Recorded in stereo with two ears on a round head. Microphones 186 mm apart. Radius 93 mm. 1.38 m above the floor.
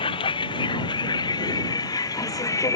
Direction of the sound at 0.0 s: 25° left (ahead or behind).